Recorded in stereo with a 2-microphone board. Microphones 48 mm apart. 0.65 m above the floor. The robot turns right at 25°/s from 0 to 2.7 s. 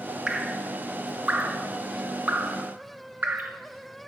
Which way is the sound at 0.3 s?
20° right (ahead or behind).